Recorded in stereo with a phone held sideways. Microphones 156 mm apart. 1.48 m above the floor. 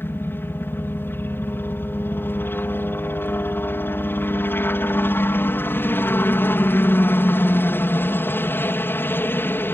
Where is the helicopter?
15° left (ahead or behind).